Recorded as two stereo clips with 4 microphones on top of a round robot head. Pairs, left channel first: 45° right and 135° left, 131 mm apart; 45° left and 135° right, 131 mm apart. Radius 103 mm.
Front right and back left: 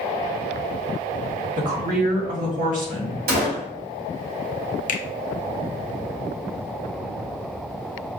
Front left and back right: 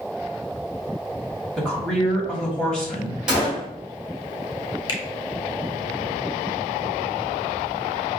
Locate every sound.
1.6 s a woman speaking: 125° left, 2 m
3.3 s a gunshot: 140° left, 1.2 m
4.9 s a finger snap: 15° right, 0.6 m